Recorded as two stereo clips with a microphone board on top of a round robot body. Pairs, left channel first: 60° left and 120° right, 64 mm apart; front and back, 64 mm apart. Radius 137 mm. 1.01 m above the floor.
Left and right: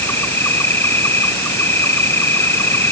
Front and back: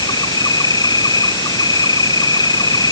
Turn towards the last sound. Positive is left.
turn(degrees=5)